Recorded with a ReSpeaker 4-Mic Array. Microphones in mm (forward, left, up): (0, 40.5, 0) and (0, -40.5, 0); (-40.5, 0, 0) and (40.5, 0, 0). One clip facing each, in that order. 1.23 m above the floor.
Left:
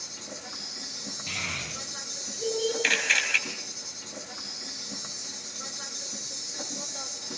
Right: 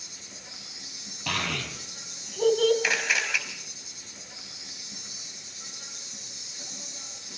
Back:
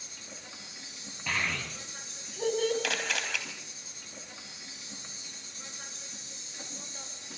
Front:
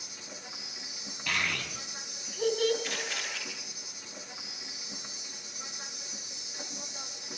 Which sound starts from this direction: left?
An insect, at 0.0 s.